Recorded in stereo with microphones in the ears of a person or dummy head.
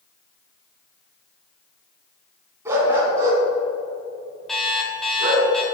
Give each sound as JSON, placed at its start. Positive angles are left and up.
{"t": 2.6, "sound": "a dog barking", "side_deg": -20, "distance_m": 5.0}
{"t": 4.5, "sound": "an alarm clock", "side_deg": 0, "distance_m": 3.5}